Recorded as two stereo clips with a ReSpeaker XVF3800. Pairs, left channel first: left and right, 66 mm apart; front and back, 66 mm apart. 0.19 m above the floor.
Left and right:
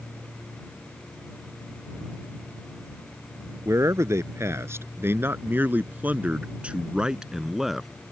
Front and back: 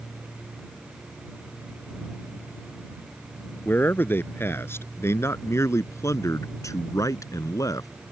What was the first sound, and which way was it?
A man speaking, 55° right.